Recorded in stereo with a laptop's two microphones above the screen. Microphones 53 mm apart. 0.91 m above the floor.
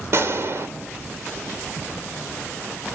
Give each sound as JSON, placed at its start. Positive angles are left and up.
{"t": 0.1, "sound": "a gunshot", "side_deg": -55, "distance_m": 2.5}